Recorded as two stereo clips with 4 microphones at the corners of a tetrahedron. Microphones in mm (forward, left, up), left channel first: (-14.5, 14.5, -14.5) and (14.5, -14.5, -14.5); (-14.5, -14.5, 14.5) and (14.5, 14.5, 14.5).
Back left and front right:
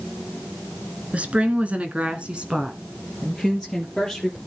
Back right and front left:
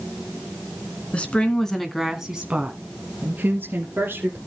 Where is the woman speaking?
90° right, 1.8 m; by 4.4 s 40° left, 3 m.